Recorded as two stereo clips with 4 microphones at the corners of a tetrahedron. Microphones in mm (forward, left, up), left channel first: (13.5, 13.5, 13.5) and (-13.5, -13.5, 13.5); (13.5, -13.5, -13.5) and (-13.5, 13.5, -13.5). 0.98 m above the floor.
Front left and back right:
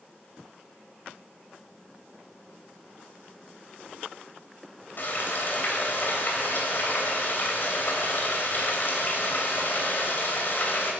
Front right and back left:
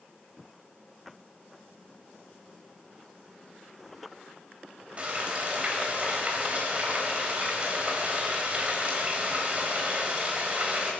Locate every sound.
5.0 s frying: 80° left, 2.5 m